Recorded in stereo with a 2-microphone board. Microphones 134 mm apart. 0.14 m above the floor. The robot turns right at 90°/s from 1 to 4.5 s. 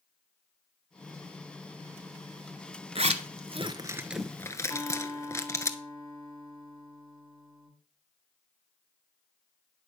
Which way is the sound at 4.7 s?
20° left (ahead or behind).